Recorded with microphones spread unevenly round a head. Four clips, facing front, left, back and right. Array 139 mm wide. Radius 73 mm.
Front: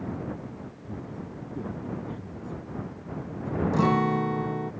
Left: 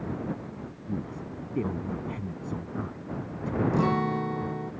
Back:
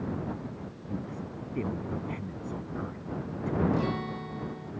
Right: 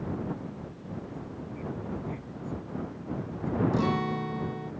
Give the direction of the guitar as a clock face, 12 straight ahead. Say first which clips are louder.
Left 2 dB, front 8 dB; 11 o'clock.